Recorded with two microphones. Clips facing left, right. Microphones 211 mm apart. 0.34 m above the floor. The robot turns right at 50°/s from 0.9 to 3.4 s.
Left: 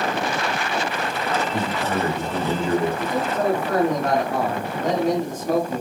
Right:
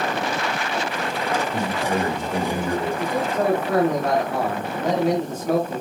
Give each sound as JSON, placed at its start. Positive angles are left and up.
{"t": 1.5, "sound": "a man speaking", "azimuth_deg": -145, "distance_m": 1.9}
{"t": 3.0, "sound": "a man speaking", "side_deg": -25, "distance_m": 1.5}